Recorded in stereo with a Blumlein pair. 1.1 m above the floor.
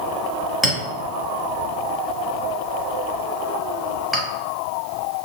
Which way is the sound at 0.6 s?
5° left.